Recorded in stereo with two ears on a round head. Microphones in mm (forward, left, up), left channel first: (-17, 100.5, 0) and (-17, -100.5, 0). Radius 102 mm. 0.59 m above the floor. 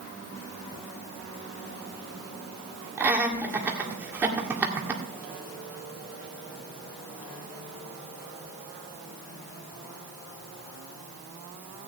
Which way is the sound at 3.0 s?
10° right (ahead or behind).